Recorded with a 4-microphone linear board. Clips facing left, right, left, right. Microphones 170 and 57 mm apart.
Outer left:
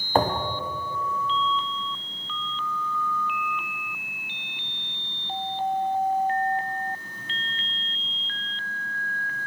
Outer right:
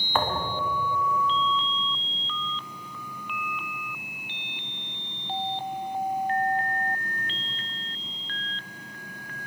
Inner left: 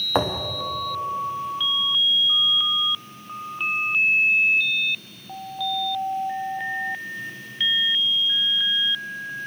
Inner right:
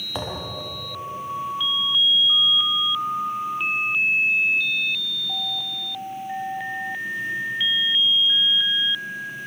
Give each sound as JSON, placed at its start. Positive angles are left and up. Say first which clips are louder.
{"t": 0.1, "sound": "a thud", "louder": "outer left 4 dB, inner left 7 dB", "side_deg": 35, "distance_m": 3.5}